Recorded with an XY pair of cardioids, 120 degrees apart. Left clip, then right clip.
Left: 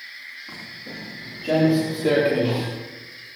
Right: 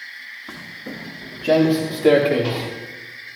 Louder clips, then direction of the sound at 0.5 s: Right 2 dB; 40° right.